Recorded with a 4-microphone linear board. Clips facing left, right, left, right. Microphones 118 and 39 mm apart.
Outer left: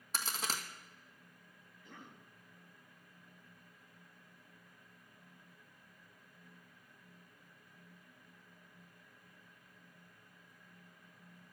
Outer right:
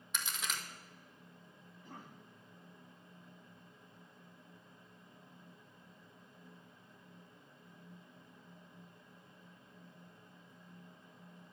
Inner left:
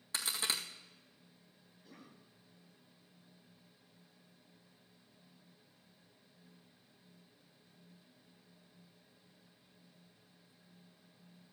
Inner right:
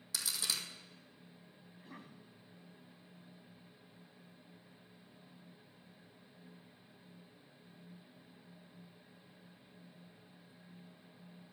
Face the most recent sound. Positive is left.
turn(degrees=-45)  # may be behind; listen again after turning